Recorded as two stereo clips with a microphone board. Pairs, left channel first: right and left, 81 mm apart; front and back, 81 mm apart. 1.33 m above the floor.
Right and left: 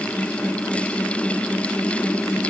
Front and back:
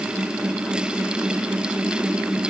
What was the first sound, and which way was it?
Only background noise.